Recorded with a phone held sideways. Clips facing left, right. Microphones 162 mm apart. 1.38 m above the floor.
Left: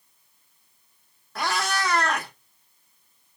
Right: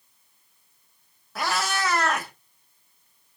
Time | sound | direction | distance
1.4 | a cat meowing | centre (ahead or behind) | 0.7 m